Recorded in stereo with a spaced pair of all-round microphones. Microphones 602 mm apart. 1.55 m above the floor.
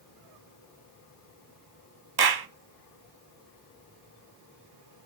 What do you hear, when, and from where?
2.2 s a clap: 40° right (ahead or behind), 0.5 m